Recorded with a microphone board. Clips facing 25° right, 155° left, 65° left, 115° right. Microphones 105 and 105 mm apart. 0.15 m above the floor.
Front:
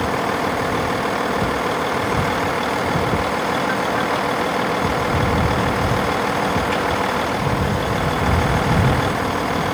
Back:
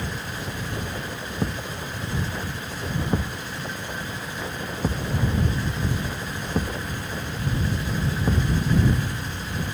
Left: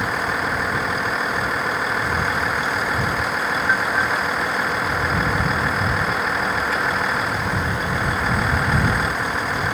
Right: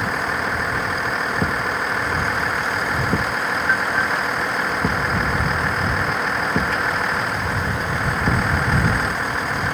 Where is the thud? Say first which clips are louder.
Front 11 dB, even; 120° right.